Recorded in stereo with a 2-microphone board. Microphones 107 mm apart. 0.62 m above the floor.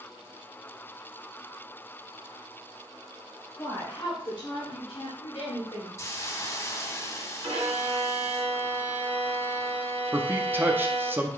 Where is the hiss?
30° left (ahead or behind), 0.6 m.